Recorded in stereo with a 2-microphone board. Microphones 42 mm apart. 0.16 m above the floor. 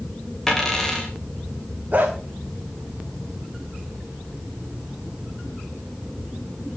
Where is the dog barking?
35° right (ahead or behind), 4 m.